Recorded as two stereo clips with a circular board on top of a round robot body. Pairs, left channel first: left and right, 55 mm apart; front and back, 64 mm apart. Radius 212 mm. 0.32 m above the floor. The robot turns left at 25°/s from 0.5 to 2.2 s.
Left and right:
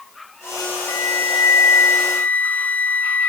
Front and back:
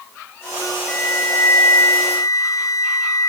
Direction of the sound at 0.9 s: 65° left.